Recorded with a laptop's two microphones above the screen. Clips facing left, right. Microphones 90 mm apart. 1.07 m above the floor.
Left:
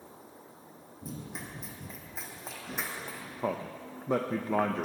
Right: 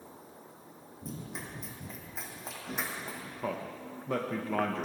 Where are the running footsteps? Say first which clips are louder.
Even; 5° left (ahead or behind), 3 m; by 3.3 s centre (ahead or behind), 4 m.